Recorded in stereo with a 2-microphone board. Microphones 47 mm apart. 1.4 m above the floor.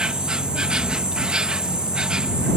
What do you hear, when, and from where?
0.0 s an insect: 20° right (ahead or behind)